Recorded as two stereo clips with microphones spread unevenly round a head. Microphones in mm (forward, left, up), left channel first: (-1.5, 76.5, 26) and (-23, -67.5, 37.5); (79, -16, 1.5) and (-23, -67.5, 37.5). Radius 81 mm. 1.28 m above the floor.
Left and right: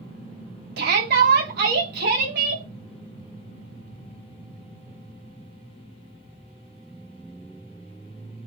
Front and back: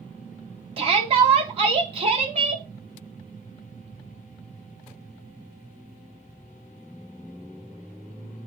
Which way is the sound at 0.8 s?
115° right.